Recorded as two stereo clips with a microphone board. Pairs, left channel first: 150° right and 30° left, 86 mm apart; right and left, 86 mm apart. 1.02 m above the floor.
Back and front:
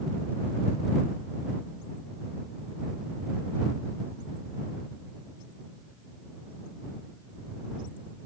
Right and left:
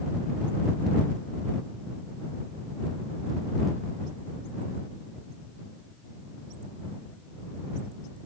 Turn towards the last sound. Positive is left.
No sound to turn to.